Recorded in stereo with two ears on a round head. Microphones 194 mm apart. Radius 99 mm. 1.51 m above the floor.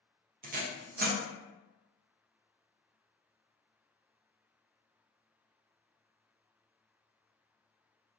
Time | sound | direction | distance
0.4 | tape being pulled | 40° right (ahead or behind) | 0.5 m